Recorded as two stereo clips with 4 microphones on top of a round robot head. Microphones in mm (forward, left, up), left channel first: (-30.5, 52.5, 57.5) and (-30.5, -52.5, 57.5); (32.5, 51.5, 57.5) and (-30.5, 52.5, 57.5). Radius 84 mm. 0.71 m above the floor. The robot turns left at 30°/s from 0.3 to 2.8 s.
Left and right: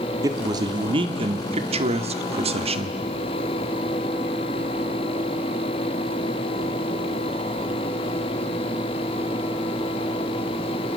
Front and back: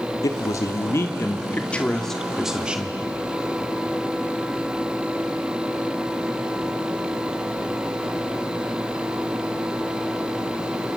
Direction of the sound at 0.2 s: 30° right.